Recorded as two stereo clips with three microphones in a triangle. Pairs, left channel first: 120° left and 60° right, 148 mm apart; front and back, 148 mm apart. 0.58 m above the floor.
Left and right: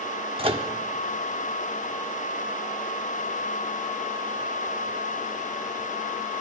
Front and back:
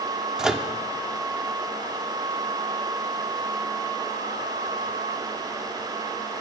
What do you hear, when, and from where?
0.4 s a microwave: 95° right, 0.9 m